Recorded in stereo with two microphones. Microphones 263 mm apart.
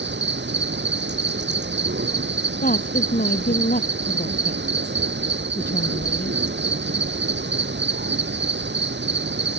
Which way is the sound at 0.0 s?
45° right (ahead or behind).